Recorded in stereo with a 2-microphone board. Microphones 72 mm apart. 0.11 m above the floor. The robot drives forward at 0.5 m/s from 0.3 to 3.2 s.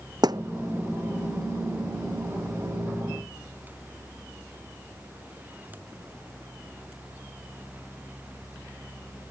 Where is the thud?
70° right (ahead or behind); by 0.4 s 75° right (ahead or behind).